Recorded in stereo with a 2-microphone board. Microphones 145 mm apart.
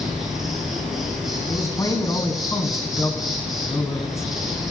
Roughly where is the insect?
Centre.